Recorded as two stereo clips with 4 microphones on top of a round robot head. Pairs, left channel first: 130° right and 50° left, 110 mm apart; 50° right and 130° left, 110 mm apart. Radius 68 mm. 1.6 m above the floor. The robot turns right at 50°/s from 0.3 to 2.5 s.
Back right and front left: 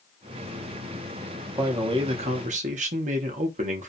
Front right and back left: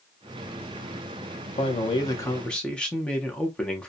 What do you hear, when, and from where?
1.6 s a man speaking: 15° right, 0.5 m; by 3.9 s 30° left, 0.5 m